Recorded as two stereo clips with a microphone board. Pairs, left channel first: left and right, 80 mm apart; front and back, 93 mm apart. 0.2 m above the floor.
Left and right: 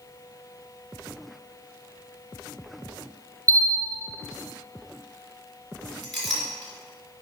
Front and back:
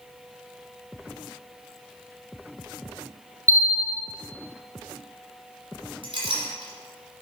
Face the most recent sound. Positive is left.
turn(degrees=180)